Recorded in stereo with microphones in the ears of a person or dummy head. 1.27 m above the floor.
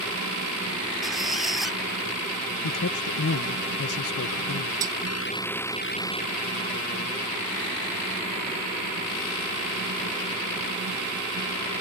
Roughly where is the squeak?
Centre.